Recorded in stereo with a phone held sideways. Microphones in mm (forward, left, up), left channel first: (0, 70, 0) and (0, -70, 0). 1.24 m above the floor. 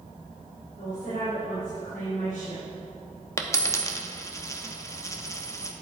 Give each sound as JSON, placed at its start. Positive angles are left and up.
{"t": 0.8, "sound": "a woman speaking", "side_deg": 85, "distance_m": 3.5}
{"t": 3.4, "sound": "a dropped coin", "side_deg": 20, "distance_m": 0.7}